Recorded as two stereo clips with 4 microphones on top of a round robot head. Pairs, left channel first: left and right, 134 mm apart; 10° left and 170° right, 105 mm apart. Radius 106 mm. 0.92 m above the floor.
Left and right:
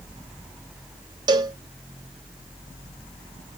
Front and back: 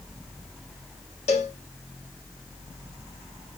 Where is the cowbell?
35° right, 0.5 m.